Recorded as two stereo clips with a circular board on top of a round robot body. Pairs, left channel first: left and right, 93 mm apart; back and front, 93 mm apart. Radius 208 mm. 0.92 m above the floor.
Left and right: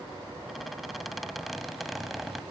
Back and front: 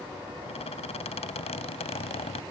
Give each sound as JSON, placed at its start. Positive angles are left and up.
{"t": 0.5, "sound": "a squeak", "azimuth_deg": 180}